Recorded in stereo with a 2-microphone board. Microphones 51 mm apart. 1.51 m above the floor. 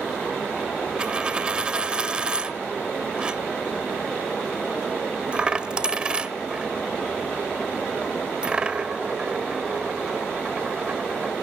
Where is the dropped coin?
20° right (ahead or behind), 1.3 m.